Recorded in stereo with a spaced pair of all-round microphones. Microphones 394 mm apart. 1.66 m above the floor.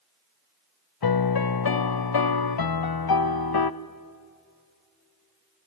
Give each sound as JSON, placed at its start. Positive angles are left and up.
{"t": 1.0, "sound": "a piano", "side_deg": 65, "distance_m": 0.5}